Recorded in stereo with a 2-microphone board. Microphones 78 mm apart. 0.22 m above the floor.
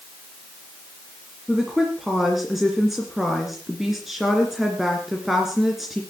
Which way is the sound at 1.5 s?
5° right (ahead or behind).